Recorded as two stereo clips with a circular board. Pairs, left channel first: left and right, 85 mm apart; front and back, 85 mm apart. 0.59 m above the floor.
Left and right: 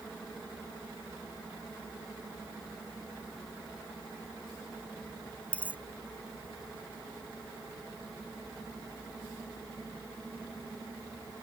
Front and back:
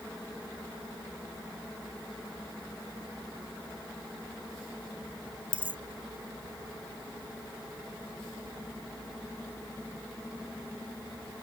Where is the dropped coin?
165° left.